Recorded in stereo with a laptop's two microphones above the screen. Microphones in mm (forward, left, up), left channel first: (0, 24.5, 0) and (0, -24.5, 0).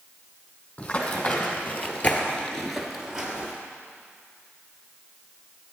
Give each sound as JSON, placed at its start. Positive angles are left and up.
{"t": 0.8, "sound": "running footsteps", "side_deg": 35, "distance_m": 2.5}